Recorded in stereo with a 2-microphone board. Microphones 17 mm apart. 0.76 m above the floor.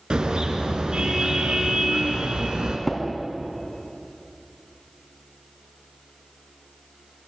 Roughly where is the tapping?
Left.